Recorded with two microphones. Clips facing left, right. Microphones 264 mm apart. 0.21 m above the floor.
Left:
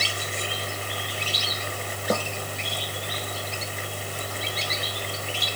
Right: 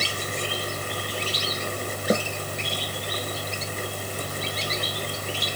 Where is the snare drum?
20° right (ahead or behind).